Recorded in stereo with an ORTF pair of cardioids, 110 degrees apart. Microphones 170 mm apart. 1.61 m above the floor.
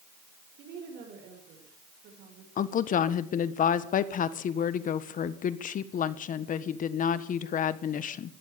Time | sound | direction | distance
0.6 | a woman speaking | 65° right | 7 m
2.6 | a woman speaking | 50° left | 1.4 m